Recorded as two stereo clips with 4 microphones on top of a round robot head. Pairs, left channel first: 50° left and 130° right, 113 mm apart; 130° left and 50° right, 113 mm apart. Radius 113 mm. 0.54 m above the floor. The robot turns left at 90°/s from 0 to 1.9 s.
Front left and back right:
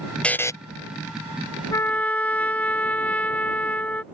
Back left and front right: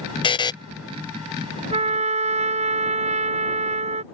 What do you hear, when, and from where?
0.2 s a buzzer: 125° left; by 0.5 s 100° left
1.7 s a trumpet: 15° right; by 4.0 s 30° right